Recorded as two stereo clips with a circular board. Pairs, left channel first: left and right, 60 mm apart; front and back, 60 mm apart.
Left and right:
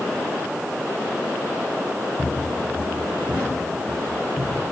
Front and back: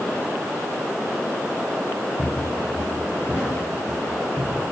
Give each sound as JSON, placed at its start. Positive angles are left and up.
{"t": 2.2, "sound": "footsteps", "azimuth_deg": 35, "distance_m": 4.0}